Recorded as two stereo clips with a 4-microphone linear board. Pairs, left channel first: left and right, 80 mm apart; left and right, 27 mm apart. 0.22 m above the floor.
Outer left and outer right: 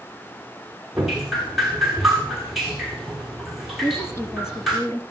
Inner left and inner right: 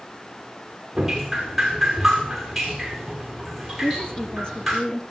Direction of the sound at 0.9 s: Centre (ahead or behind).